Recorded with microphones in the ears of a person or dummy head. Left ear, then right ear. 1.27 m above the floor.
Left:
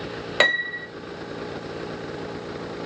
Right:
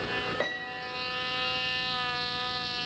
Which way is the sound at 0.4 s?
50° left (ahead or behind).